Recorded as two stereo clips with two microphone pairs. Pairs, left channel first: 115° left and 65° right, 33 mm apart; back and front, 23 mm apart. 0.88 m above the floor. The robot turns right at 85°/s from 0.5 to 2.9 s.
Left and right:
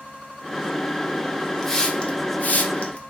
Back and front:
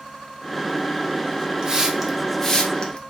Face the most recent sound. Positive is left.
turn(degrees=150)